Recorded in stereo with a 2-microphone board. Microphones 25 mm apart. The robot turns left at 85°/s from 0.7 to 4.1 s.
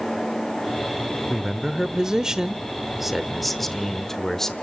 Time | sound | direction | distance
1.3 | a man speaking | 5° right (ahead or behind) | 0.8 m